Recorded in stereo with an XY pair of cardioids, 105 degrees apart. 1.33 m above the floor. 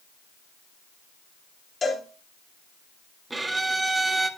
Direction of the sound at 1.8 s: 35° left.